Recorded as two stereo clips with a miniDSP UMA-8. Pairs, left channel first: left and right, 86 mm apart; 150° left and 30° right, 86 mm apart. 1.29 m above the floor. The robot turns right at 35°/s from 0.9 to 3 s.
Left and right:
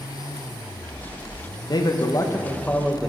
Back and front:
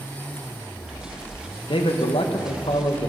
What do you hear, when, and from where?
1.7 s a man speaking: 130° left, 0.9 m; by 3.1 s 175° left, 0.9 m